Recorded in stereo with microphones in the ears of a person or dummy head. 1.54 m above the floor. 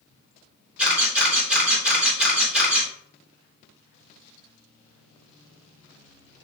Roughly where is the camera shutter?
Centre.